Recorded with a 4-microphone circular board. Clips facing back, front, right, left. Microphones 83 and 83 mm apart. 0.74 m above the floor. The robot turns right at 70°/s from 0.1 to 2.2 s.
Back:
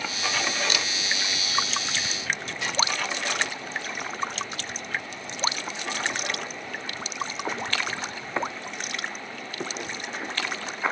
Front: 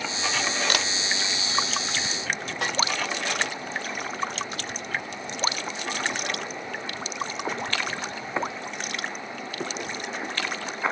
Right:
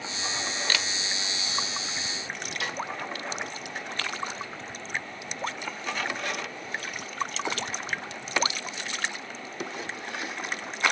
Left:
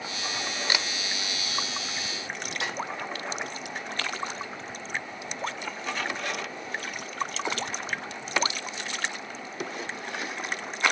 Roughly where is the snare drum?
Ahead left.